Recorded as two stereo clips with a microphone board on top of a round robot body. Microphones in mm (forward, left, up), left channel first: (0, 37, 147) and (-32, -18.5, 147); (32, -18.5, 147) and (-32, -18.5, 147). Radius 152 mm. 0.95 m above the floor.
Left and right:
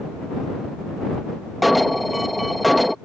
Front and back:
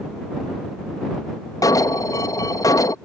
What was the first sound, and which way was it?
An alarm, 30° right.